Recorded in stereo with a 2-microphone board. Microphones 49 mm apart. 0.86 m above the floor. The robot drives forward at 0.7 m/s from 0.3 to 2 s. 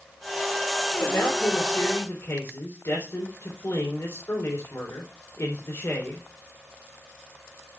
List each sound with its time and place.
1.0 s a man speaking: 70° left (ahead or behind), 3.5 m; by 6.3 s 60° left (ahead or behind), 3.5 m